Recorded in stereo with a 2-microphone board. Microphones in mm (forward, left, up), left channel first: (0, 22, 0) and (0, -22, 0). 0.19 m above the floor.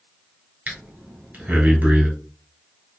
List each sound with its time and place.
0.7 s breathing: 40° right (ahead or behind), 1.6 m